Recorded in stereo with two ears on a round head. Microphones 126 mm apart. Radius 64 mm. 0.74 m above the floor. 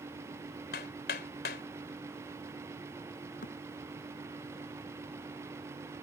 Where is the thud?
70° left (ahead or behind).